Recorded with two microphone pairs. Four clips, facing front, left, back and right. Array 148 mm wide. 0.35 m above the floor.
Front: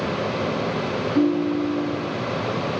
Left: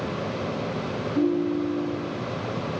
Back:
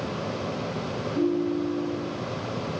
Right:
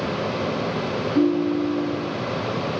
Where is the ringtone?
50° right, 3 m.